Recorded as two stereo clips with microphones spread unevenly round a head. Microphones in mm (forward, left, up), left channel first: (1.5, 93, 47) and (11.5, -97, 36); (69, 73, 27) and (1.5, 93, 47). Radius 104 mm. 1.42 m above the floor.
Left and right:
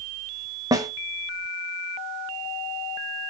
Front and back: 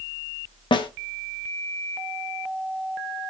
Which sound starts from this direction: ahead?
A snare drum, at 0.7 s.